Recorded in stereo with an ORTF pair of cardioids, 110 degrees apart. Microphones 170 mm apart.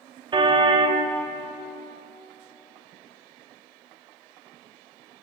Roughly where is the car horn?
Ahead right.